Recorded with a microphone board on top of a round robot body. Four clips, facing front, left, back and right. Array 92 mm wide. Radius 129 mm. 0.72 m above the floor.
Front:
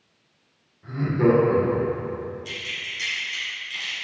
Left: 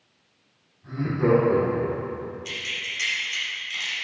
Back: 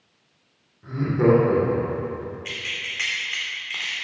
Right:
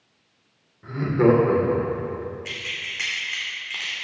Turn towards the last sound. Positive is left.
turn(degrees=-145)